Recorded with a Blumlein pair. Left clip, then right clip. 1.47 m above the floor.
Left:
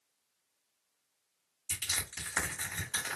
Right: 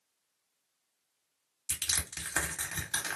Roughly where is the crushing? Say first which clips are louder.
Right 1 dB; ahead right.